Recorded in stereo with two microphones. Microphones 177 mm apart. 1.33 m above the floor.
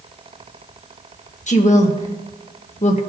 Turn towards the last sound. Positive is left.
turn(degrees=40)  # may be behind; listen again after turning